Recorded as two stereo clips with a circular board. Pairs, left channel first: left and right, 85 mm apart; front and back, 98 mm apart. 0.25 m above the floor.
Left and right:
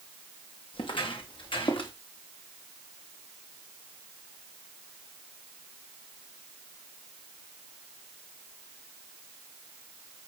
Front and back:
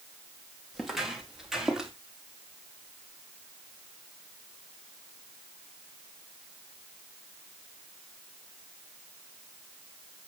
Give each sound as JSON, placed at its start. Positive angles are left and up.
{"t": 0.7, "sound": "footsteps", "azimuth_deg": 90, "distance_m": 4.5}